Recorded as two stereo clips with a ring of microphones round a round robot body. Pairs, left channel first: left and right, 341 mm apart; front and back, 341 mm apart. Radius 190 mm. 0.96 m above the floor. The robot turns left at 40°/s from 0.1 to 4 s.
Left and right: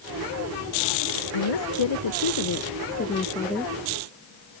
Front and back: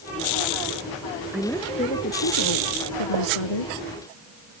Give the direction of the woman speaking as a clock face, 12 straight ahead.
9 o'clock.